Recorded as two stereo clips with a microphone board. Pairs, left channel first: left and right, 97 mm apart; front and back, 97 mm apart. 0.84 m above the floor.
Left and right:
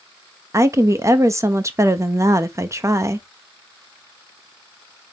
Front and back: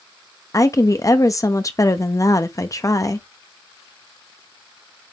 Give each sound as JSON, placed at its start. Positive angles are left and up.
{"t": 0.5, "sound": "a woman speaking", "azimuth_deg": -40, "distance_m": 0.8}